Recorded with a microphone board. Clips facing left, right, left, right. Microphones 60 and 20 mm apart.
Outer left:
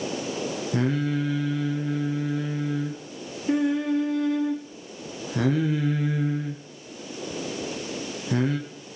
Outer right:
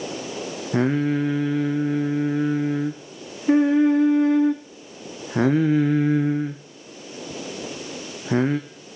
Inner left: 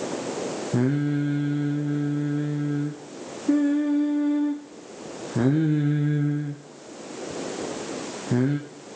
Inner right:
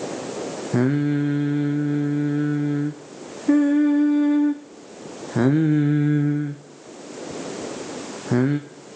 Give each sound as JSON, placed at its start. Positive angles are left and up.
{"t": 0.7, "sound": "singing", "side_deg": -30, "distance_m": 1.6}